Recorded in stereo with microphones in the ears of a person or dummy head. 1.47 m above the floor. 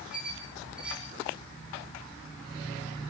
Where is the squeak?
5° right (ahead or behind), 8 m.